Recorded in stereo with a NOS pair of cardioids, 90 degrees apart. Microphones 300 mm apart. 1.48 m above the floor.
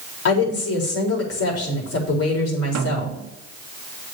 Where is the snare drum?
70° right, 1.1 m.